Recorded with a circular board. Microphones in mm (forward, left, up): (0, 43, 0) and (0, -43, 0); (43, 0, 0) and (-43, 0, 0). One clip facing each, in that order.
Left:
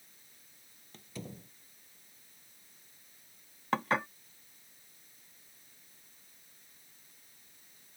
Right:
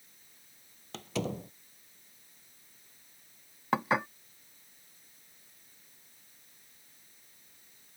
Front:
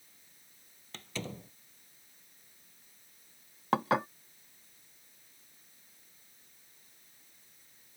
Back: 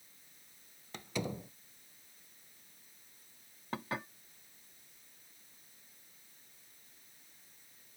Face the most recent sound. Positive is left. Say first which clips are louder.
# right 2 dB, front 12 dB
turn(degrees=-10)